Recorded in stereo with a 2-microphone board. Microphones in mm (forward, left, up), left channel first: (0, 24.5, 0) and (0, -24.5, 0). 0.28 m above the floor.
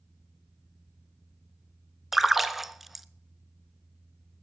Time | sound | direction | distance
2.1 | a splash | 5° right (ahead or behind) | 0.5 m